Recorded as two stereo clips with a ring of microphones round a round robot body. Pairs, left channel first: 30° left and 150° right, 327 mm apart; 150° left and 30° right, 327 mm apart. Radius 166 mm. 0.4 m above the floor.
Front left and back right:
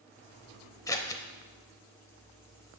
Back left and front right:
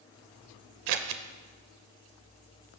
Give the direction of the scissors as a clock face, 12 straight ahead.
2 o'clock.